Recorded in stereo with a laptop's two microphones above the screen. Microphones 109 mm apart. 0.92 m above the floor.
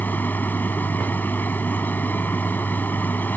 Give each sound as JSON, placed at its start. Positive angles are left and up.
{"t": 0.0, "sound": "a machine running", "side_deg": 15}